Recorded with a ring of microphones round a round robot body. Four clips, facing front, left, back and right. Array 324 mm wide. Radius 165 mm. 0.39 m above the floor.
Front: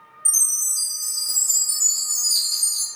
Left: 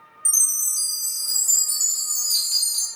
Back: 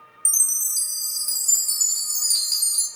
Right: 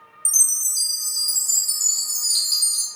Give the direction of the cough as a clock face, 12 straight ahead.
No cough in this recording.